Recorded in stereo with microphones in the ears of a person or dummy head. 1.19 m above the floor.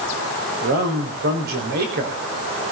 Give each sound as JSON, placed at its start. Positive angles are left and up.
{"t": 0.6, "sound": "a man speaking", "side_deg": -55, "distance_m": 4.0}